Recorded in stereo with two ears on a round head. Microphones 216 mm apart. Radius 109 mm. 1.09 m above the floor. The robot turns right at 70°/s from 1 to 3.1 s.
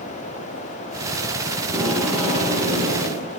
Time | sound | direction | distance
1.6 | tape being pulled | 20° right | 4.5 m